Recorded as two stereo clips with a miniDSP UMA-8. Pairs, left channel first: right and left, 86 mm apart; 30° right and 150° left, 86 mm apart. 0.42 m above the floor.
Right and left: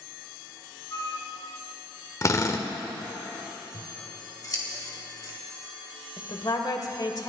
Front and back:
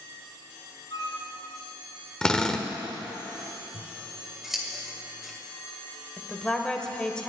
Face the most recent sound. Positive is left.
turn(degrees=-110)